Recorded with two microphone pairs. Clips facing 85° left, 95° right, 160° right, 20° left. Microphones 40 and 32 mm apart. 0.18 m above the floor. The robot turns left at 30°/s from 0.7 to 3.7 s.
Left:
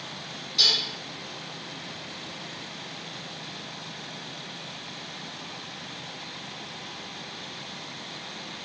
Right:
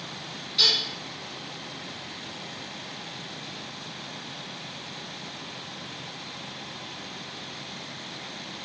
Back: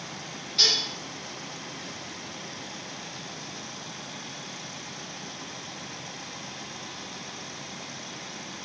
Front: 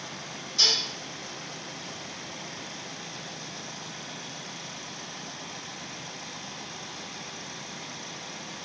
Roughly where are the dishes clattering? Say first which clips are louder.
Even, back 1 dB; behind right.